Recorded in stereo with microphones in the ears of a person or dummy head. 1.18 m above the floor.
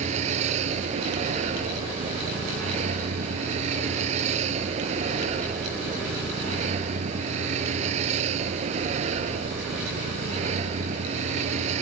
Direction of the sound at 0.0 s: 35° right (ahead or behind).